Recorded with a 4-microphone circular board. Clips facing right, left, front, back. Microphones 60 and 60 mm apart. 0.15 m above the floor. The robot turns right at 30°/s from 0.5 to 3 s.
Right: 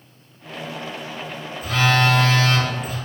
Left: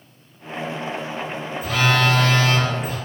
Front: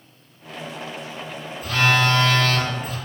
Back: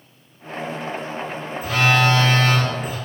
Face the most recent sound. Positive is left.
turn(degrees=-170)